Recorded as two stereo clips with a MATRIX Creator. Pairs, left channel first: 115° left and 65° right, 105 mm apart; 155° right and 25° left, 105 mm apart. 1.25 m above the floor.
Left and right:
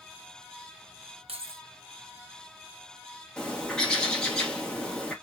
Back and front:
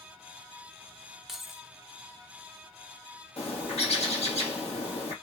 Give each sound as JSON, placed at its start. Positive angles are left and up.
{"t": 1.3, "sound": "keys jangling", "azimuth_deg": -65, "distance_m": 0.5}
{"t": 3.4, "sound": "a bird", "azimuth_deg": -165, "distance_m": 1.2}